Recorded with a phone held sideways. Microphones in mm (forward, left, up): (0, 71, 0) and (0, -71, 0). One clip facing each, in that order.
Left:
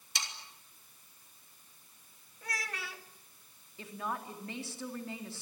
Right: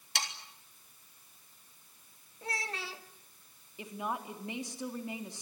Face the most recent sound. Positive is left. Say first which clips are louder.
# right 2 dB
turn(degrees=-15)  # may be behind; listen again after turning